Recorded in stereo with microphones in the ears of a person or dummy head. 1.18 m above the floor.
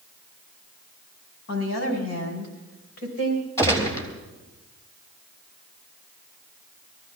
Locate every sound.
1.5 s a woman speaking: 80° left, 4 m; by 3.5 s 90° left, 5 m
3.6 s a gunshot: 20° left (ahead or behind), 3 m